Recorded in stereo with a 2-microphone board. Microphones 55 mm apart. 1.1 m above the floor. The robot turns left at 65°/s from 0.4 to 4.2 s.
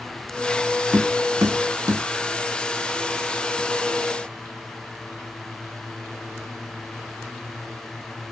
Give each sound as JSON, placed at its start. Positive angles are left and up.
{"t": 0.9, "sound": "tapping", "side_deg": -40, "distance_m": 1.6}